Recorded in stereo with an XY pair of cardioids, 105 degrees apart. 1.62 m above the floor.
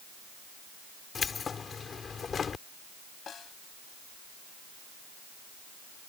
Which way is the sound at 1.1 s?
40° left.